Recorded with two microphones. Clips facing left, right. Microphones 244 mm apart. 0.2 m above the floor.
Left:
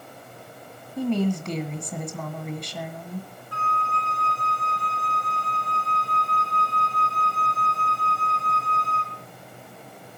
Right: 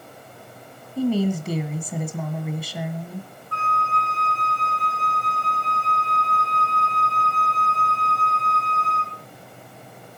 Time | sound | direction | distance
1.0 | a woman speaking | 5° right (ahead or behind) | 1.7 m
3.5 | a flute | 60° right (ahead or behind) | 2.5 m